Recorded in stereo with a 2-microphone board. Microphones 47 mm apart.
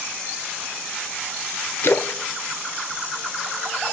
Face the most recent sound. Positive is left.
turn(degrees=55)  # may be behind; listen again after turning